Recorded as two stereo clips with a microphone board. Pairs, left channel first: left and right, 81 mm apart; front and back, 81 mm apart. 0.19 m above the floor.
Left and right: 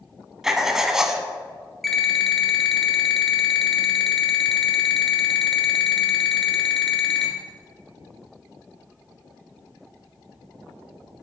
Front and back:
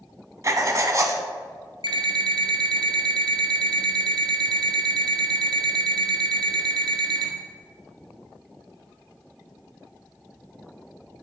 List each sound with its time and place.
0.4 s writing: 170° right, 0.6 m
1.8 s an alarm clock: 175° left, 1.1 m